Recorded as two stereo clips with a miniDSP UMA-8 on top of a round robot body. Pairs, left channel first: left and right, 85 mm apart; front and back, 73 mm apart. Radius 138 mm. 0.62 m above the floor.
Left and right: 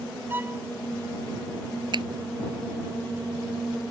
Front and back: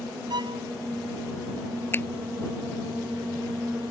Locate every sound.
0.3 s a violin: 160° right
1.9 s a finger snap: 60° right